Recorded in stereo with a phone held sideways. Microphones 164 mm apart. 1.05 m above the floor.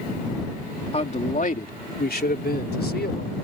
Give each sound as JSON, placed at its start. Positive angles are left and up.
{"t": 0.9, "sound": "a man speaking", "side_deg": 40}